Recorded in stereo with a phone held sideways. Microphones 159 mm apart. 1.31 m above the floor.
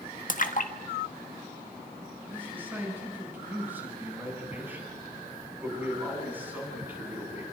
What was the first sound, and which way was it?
A splash, 55° left (ahead or behind).